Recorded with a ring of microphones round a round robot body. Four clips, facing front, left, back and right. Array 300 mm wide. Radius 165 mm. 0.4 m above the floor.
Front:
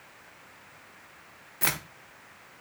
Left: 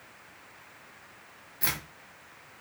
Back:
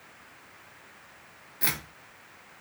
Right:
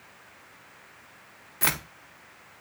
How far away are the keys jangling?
About 0.5 m.